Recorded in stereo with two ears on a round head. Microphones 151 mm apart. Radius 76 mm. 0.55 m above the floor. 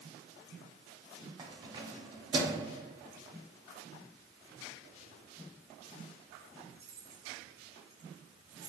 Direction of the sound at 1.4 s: 25° right (ahead or behind).